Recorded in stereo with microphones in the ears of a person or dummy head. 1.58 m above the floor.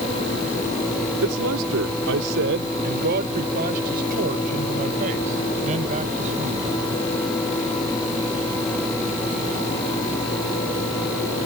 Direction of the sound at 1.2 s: 80° right.